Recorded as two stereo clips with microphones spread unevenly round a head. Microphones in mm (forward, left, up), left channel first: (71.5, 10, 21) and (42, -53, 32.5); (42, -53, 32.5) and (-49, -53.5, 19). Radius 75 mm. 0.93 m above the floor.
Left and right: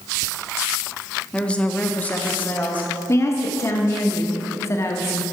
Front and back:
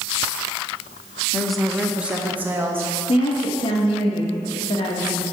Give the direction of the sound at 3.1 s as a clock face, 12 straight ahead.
11 o'clock.